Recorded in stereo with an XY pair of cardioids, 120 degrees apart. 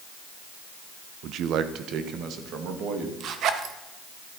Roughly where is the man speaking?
Ahead right.